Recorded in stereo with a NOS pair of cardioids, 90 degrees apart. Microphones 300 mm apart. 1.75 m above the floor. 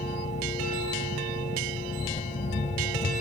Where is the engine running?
25° left.